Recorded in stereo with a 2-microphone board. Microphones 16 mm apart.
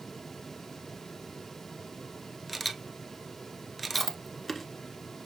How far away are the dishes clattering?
No dishes clattering in this recording.